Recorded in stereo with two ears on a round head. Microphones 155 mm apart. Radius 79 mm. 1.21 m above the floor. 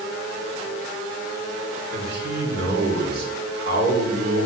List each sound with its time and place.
1.9 s a man speaking: 70° right (ahead or behind), 4 m